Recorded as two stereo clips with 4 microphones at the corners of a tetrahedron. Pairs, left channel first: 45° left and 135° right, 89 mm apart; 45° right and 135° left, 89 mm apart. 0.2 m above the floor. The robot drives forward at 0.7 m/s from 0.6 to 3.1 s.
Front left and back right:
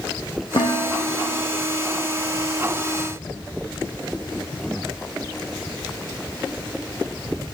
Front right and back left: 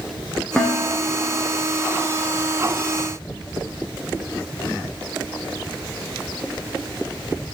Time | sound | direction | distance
0.6 | dishes clattering | 35° left | 9 m